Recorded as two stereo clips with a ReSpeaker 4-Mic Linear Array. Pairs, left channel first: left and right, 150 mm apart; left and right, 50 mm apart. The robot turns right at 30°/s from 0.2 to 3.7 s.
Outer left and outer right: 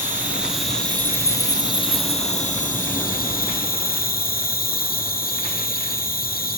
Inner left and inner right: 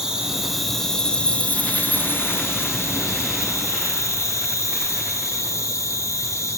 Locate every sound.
0.0 s an insect: 10° right, 3.5 m; by 6.6 s 95° left, 3.5 m